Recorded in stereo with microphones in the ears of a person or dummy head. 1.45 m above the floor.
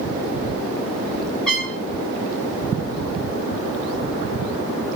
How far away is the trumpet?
About 2 m.